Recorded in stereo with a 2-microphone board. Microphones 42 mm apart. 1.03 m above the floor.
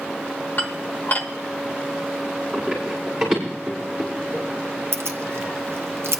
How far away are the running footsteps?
About 6 m.